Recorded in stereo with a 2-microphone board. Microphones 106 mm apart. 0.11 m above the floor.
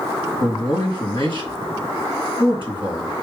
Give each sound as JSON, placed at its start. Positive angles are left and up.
{"t": 0.4, "sound": "a man speaking", "side_deg": 50, "distance_m": 2.0}